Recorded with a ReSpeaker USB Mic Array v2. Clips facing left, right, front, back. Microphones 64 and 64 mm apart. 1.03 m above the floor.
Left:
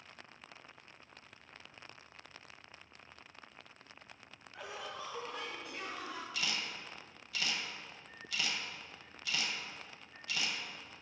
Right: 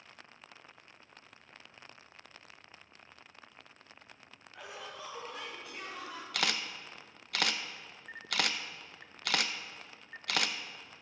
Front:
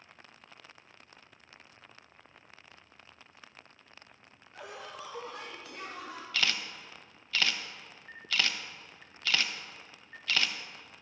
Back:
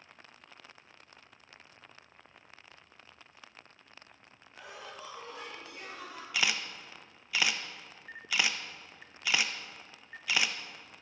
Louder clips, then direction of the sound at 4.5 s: Left 1 dB, front 3 dB; 20° left.